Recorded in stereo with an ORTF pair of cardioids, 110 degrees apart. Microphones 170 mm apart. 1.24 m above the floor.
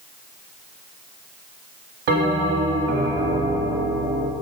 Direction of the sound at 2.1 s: 65° right.